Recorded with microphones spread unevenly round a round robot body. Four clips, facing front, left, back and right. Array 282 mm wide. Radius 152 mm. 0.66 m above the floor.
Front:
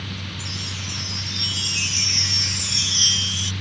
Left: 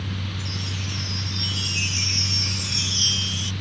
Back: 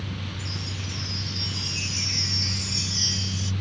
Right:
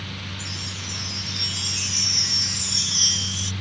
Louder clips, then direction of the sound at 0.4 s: Left 3 dB, front 1 dB; 25° right.